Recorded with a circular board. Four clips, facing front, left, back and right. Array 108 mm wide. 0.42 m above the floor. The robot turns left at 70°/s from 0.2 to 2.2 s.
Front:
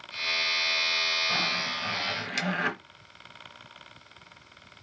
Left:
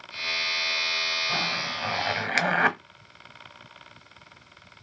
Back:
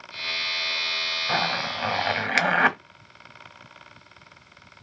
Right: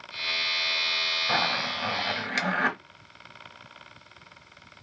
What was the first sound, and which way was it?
A zipper, 140° right.